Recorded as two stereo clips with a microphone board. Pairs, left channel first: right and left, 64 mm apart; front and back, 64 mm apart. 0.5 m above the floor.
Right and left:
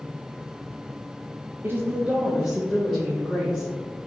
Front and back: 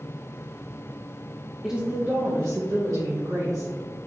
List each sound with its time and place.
1.6 s a woman speaking: 100° left, 0.9 m; by 3.9 s 170° right, 3 m